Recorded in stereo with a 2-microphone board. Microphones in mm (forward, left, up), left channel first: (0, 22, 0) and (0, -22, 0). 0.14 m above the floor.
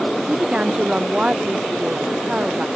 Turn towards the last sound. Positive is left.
turn(degrees=-25)  # may be behind; listen again after turning